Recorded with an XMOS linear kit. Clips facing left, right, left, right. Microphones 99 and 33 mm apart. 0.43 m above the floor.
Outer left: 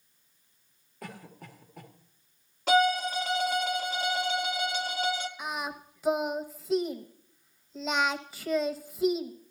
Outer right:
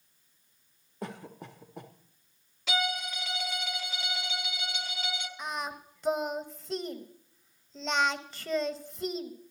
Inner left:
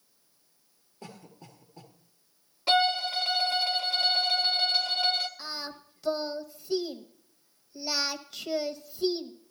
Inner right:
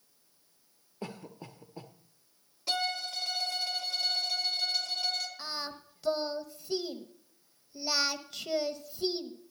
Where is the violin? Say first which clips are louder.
Outer left 9 dB, inner left 8 dB; 45° left (ahead or behind), 1.1 m.